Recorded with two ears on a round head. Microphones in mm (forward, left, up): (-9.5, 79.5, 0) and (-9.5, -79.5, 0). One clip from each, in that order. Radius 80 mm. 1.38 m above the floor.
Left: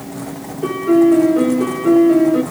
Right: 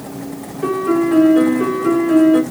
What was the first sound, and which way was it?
A piano, 30° right (ahead or behind).